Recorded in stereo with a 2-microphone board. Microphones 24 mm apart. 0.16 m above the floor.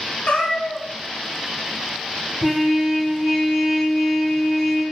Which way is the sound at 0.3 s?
55° left (ahead or behind).